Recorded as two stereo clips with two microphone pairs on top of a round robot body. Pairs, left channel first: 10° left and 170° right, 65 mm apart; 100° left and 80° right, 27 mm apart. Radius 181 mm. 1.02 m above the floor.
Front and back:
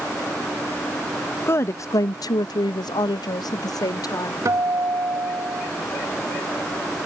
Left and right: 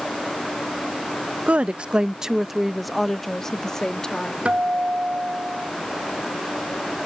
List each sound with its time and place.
1.5 s a woman speaking: 50° right; by 4.3 s 35° left
4.5 s a guitar: 125° right